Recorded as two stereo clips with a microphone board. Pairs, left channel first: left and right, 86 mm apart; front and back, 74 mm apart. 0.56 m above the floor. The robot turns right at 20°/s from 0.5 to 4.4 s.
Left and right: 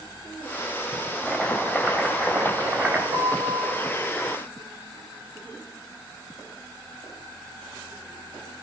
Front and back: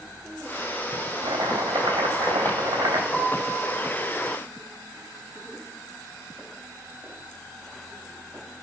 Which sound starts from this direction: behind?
Chopping, at 1.2 s.